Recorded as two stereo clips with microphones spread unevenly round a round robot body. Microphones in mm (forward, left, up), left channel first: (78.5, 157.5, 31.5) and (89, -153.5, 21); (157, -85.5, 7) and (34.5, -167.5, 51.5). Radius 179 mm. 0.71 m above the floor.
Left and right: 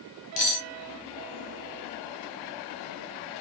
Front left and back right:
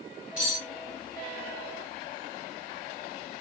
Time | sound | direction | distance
0.4 | cutlery clinking | 125° left | 1.0 m